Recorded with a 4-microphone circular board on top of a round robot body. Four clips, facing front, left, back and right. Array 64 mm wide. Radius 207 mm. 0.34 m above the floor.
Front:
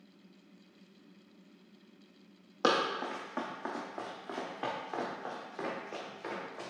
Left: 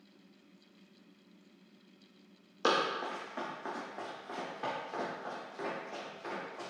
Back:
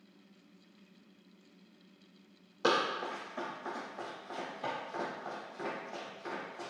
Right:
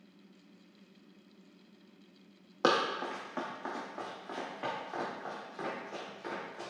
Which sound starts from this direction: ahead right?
Running footsteps, at 2.6 s.